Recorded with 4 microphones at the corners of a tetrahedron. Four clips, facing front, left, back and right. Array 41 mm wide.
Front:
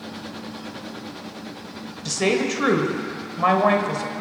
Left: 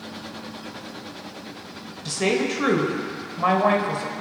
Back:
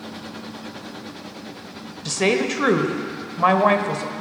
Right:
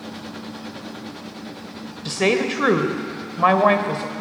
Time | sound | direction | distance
2.0 | a woman speaking | 110° right | 1.2 m